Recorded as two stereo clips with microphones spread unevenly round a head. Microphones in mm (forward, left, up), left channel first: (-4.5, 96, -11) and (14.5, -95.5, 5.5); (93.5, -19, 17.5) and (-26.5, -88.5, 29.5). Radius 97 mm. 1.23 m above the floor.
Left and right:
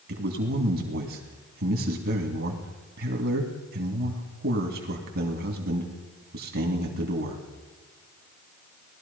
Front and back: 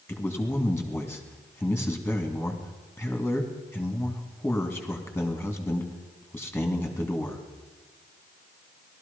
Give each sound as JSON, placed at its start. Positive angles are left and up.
{"t": 0.1, "sound": "a man speaking", "azimuth_deg": -50, "distance_m": 2.5}